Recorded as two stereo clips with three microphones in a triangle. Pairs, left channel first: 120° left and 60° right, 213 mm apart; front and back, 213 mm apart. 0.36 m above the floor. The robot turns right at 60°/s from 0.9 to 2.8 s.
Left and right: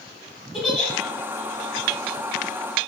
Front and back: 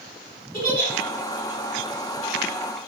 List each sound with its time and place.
0.5 s a giggle: 30° left, 1.0 m